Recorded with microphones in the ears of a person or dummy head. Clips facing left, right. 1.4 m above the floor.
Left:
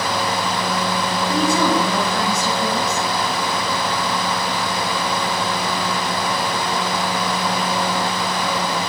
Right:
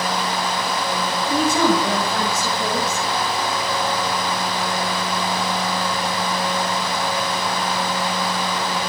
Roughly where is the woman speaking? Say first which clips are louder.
Right 1 dB; right.